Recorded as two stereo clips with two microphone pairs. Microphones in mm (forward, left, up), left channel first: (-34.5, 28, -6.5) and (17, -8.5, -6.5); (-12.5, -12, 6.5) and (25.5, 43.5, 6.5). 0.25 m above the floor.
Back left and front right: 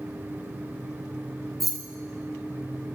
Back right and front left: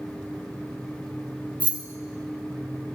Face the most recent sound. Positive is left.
turn(degrees=60)